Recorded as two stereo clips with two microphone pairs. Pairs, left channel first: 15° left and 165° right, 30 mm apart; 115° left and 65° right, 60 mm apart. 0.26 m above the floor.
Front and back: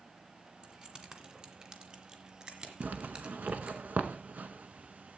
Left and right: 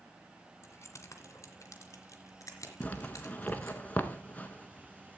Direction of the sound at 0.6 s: 145° left.